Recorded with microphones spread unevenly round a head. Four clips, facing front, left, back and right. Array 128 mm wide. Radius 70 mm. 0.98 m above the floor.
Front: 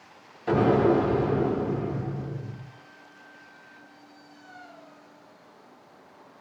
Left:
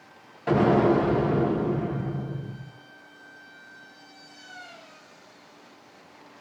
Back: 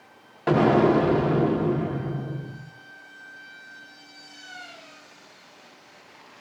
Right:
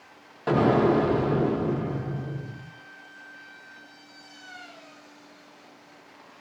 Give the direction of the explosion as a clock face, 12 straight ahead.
5 o'clock.